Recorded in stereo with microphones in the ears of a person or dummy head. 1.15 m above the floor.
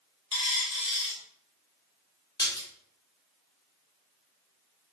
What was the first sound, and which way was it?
A dropped coin, 30° left (ahead or behind).